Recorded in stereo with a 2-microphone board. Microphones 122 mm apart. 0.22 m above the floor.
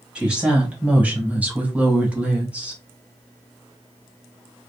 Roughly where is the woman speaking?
Centre.